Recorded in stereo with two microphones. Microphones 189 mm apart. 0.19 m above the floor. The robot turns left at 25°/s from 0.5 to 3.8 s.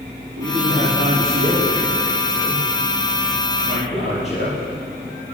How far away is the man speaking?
About 4.5 m.